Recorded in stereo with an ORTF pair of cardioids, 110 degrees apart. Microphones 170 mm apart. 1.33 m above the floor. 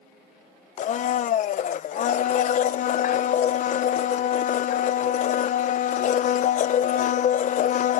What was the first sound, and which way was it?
A blender, 50° left.